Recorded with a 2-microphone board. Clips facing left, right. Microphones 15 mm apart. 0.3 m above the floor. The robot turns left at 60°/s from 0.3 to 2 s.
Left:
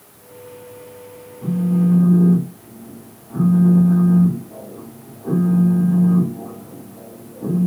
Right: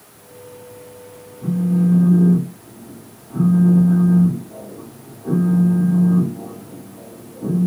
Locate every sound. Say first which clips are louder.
1.4 s a phone buzzing: even; 110° left, 1.8 m; by 7.7 s 75° left, 1.8 m